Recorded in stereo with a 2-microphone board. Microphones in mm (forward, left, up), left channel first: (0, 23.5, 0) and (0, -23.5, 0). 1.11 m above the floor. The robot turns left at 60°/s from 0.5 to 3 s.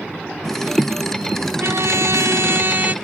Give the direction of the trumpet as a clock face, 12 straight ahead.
2 o'clock.